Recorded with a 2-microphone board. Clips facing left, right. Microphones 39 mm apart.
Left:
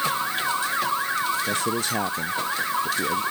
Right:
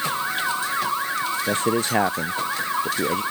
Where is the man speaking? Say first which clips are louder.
Right 3 dB; 40° right (ahead or behind).